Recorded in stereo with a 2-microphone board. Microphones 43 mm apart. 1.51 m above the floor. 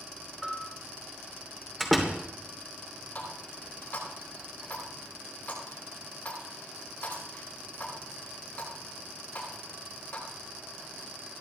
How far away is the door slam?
About 3 m.